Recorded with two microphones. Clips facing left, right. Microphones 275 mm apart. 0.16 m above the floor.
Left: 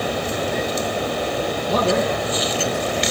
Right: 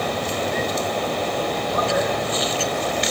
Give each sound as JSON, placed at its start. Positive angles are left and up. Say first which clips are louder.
{"t": 1.7, "sound": "a man speaking", "louder": "left 5 dB", "side_deg": 75, "distance_m": 6.0}